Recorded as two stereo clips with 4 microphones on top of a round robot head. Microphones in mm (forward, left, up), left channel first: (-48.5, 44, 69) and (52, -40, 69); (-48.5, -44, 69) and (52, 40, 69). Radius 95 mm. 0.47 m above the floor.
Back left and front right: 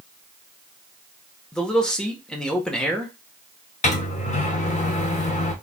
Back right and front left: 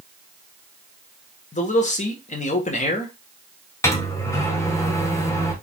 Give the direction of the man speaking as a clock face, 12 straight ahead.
5 o'clock.